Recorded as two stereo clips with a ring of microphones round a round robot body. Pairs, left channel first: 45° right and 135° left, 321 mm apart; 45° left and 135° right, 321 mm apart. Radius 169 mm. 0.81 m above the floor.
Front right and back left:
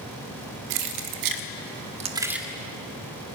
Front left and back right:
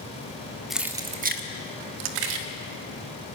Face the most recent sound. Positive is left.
turn(degrees=-135)